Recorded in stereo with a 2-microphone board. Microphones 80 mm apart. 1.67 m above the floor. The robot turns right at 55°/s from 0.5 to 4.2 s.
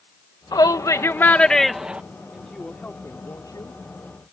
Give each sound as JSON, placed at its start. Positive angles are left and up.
{"t": 0.5, "sound": "a shout", "azimuth_deg": 115}
{"t": 2.3, "sound": "a woman speaking", "azimuth_deg": -10}